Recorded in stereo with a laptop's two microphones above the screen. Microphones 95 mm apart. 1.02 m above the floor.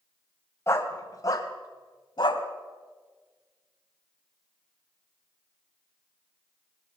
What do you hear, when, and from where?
0.7 s a dog barking: 25° left (ahead or behind), 2.5 m; by 2.4 s 50° left (ahead or behind), 3 m